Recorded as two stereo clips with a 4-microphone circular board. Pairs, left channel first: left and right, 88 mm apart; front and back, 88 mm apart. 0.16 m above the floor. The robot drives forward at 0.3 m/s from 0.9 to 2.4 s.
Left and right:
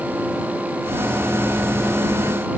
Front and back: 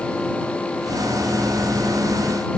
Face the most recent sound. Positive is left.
No sound to turn to.